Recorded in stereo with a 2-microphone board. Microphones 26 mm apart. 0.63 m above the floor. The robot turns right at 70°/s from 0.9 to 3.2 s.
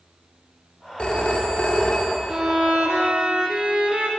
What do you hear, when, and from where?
1.0 s a phone ringing: 50° left, 1.1 m; by 2.2 s 135° left, 1.1 m
2.3 s a violin: 135° right, 1.0 m; by 4.1 s 70° right, 1.0 m